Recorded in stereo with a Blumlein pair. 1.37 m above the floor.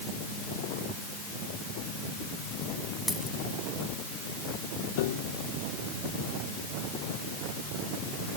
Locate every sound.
3.1 s a dropped coin: 5° left
5.0 s a piano: 50° left